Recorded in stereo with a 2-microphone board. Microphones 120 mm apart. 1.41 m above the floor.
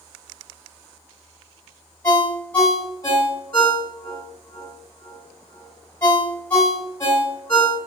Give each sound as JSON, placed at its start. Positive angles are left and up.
{"t": 2.0, "sound": "a ringtone", "side_deg": 20, "distance_m": 2.0}